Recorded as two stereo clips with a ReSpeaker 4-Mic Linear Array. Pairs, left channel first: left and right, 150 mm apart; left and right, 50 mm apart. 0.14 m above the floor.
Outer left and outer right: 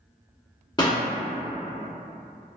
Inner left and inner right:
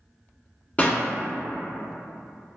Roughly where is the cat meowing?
I don't hear a cat meowing.